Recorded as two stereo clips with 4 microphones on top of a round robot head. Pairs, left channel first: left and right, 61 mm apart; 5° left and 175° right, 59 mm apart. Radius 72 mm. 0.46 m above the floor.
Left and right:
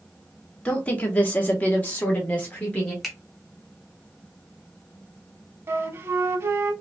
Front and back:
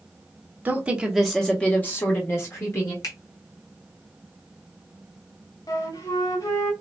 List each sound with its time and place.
0.7 s a woman speaking: 145° left, 1.0 m; by 2.9 s 25° left, 1.7 m
3.0 s a finger snap: 5° left, 1.9 m
5.7 s a flute: 40° right, 0.5 m